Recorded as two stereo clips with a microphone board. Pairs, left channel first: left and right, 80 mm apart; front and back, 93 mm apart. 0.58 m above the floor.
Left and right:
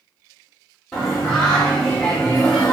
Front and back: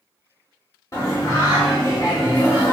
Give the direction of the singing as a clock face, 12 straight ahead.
12 o'clock.